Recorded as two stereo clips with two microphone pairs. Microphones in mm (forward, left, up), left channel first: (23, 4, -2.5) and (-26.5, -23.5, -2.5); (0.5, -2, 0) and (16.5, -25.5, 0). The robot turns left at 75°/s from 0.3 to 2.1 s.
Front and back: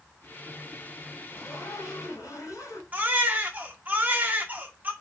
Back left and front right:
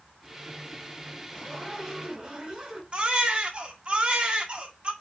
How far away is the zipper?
About 4 m.